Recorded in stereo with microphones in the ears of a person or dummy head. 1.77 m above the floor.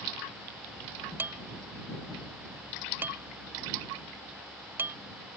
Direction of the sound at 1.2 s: 15° right (ahead or behind).